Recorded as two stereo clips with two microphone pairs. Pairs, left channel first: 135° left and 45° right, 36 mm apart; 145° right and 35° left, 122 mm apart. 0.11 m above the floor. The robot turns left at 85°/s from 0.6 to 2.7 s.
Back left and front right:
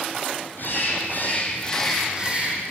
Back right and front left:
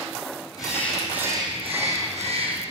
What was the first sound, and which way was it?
A bird, 160° left.